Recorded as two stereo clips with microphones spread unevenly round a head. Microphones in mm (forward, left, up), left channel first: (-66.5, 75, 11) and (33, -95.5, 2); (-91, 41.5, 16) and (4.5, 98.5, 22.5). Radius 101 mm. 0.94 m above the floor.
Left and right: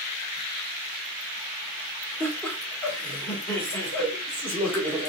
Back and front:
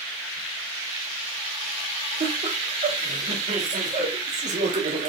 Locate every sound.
2.2 s laughter: 40° left, 2.0 m